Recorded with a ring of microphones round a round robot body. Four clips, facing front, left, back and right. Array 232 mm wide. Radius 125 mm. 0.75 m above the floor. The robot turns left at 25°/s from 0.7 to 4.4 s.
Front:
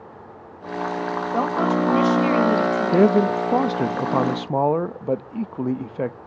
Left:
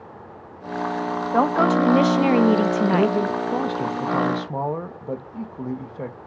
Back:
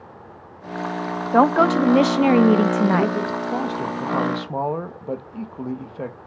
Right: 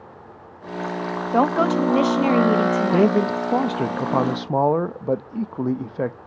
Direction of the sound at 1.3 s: 165° right.